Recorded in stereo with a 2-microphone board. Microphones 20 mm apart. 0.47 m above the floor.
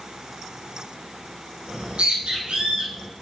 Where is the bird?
75° right (ahead or behind), 3.5 m.